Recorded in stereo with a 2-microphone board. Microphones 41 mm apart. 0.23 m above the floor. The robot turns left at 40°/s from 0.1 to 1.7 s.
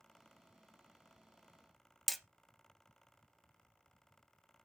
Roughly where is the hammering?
Centre.